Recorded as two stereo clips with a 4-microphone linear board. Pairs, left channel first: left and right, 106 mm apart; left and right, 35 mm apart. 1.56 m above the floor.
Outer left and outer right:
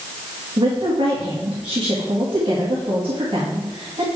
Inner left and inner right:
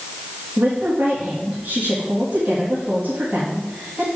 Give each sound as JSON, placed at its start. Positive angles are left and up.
{"t": 0.6, "sound": "a woman speaking", "side_deg": -50, "distance_m": 2.0}